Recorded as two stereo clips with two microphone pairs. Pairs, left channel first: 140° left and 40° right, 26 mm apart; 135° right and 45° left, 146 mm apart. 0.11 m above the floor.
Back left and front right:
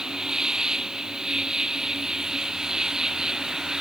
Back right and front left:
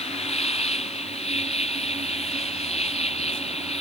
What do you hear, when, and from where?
0.0 s an insect: 100° right